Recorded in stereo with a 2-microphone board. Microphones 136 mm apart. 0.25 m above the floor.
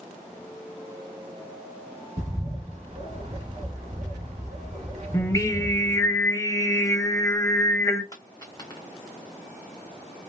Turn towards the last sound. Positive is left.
turn(degrees=25)  # may be behind; listen again after turning